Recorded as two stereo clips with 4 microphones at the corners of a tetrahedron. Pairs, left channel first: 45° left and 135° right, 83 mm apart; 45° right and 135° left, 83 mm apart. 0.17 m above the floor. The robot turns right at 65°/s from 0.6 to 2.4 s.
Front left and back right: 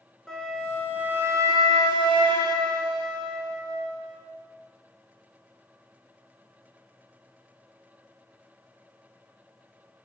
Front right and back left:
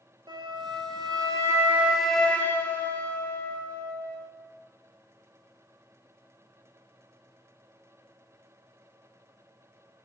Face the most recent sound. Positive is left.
turn(degrees=-115)